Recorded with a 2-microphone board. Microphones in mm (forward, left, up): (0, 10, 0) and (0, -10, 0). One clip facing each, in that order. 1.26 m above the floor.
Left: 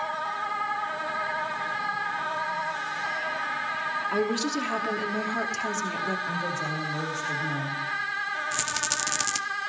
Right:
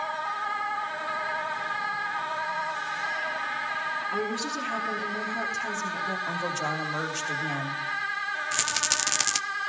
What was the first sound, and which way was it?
A woman speaking, 50° left (ahead or behind).